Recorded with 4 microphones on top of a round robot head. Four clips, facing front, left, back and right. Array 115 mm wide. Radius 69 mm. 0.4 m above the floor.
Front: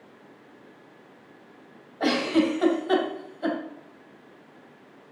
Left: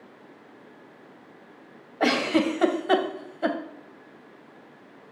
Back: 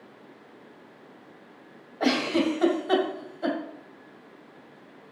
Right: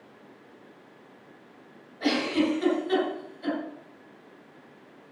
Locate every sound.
2.0 s a giggle: 90° left, 2 m